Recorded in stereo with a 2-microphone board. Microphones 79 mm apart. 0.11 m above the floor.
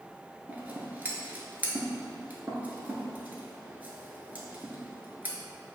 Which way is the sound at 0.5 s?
25° right (ahead or behind).